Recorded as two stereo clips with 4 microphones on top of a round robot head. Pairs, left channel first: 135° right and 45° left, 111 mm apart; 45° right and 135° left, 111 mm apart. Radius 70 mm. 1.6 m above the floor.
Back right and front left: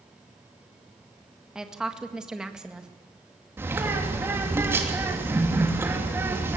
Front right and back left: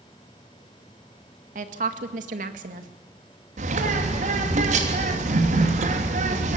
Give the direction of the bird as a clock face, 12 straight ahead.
8 o'clock.